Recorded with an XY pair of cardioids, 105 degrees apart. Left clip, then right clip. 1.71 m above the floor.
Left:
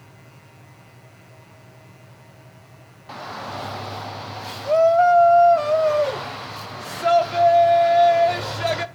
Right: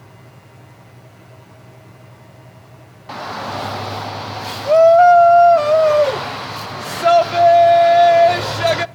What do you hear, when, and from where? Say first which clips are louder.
0.0 s a fan: right 4 dB; 40° right, 1.0 m
3.1 s a shout: right 6 dB; 40° right, 0.6 m